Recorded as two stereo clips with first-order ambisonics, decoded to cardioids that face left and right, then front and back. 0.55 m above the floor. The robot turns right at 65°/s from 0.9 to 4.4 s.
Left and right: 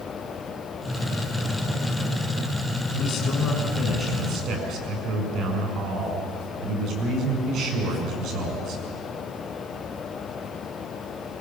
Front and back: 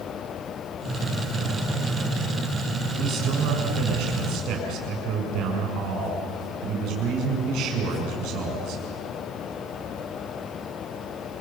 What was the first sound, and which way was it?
A man speaking, 125° left.